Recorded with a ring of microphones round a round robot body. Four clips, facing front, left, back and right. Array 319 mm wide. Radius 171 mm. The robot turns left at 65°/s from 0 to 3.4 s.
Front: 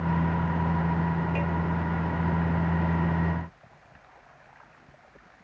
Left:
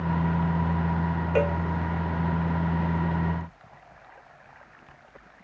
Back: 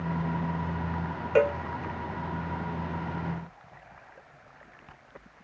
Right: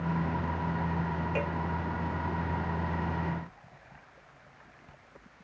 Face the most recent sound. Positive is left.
turn(degrees=25)